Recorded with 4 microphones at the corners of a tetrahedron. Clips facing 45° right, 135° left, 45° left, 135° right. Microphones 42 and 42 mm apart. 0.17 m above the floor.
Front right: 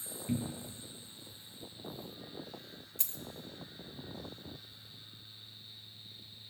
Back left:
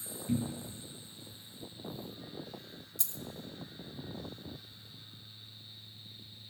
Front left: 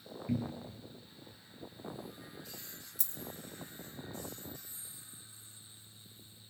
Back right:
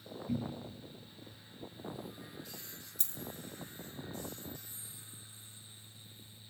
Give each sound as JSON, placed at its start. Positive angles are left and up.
{"t": 0.3, "sound": "a cupboard door", "azimuth_deg": 15, "distance_m": 1.7}
{"t": 3.0, "sound": "a dropped coin", "azimuth_deg": -95, "distance_m": 0.7}